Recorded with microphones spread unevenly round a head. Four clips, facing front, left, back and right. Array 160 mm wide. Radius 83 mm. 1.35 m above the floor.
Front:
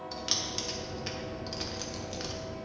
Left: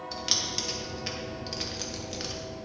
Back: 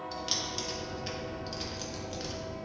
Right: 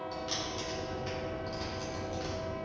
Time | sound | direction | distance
0.1 | keys jangling | 60° left | 1.2 m